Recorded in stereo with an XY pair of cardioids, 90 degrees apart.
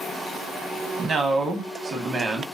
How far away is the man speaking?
About 1.0 m.